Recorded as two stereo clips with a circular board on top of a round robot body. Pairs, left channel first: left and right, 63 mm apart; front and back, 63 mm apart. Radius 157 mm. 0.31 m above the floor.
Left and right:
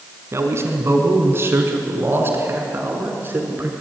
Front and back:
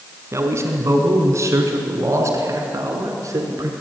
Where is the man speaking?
135° right, 4.5 m; by 3.7 s 145° right, 6 m.